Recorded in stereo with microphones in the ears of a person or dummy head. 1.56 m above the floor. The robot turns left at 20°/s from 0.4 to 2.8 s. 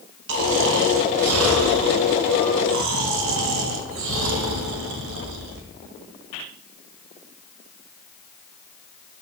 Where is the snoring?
65° right, 2.5 m; by 5.7 s 110° right, 2.5 m.